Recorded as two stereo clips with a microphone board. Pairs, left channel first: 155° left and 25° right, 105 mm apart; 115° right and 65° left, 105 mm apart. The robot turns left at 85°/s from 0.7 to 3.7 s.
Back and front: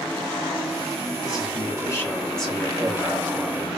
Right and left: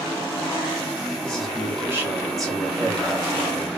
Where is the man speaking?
Straight behind, 1.2 m; by 3.7 s 30° right, 1.2 m.